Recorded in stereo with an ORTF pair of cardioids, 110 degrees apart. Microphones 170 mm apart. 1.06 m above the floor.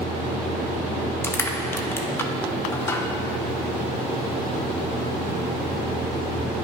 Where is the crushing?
15° left, 0.7 m.